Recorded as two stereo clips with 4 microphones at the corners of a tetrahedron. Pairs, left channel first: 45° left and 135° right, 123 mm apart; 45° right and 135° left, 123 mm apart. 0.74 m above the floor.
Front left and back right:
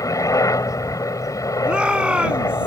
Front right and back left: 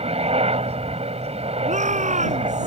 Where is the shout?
145° left.